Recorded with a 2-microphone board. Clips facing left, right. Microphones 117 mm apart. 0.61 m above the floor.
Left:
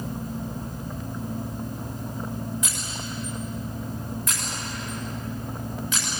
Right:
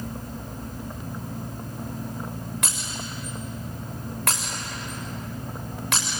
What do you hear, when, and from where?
2.6 s breaking glass: 85° right, 8 m